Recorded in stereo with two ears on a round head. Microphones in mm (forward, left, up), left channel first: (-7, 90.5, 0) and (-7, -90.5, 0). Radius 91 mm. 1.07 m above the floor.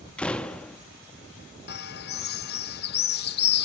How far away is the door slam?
About 0.9 m.